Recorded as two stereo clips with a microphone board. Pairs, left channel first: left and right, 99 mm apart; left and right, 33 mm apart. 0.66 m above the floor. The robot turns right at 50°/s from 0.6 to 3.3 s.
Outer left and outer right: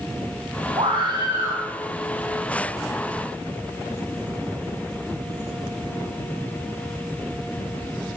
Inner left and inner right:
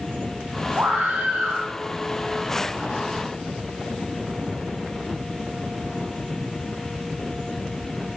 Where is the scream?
65° right, 6.5 m; by 1.6 s 20° right, 6.5 m.